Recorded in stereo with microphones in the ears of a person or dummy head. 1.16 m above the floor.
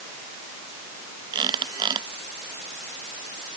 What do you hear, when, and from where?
1.3 s a squeak: 25° right (ahead or behind)